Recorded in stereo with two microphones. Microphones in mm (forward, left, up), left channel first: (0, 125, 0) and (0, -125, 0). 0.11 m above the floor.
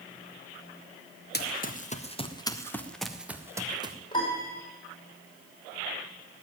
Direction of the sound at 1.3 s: 40° left (ahead or behind).